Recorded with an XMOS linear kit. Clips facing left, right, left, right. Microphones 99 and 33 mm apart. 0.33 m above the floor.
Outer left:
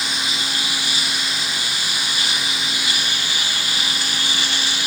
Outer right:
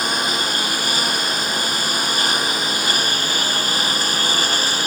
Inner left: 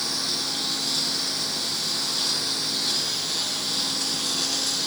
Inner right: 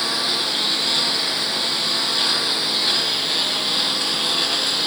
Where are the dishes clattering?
I don't hear dishes clattering.